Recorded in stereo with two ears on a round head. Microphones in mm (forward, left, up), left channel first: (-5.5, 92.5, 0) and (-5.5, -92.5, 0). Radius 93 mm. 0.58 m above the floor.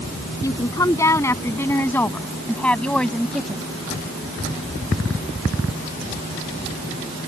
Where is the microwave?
No microwave in this recording.